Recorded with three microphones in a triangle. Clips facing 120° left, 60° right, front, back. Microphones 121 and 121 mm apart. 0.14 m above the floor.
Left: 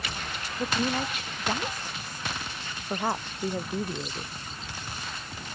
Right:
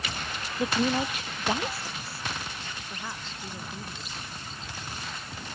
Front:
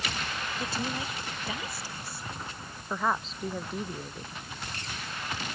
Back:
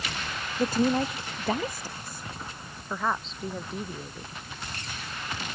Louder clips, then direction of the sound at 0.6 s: Right 2 dB, back 12 dB; 140° right.